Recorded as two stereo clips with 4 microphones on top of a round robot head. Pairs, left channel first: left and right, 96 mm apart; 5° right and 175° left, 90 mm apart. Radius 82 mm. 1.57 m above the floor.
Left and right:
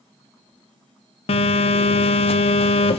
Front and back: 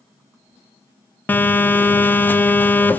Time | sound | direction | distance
1.3 | a phone buzzing | 65° left | 1.0 m